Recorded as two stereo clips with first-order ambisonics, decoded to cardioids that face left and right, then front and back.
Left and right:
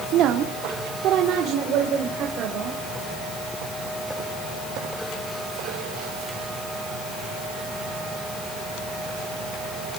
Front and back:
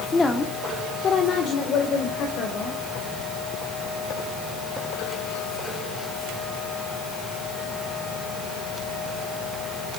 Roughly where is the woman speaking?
Right.